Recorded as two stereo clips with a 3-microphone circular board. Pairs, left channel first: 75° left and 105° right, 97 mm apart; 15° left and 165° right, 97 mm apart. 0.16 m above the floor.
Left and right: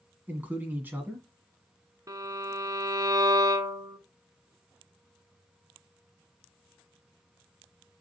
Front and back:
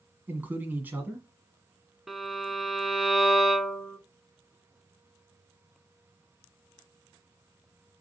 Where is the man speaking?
135° right, 1.4 m.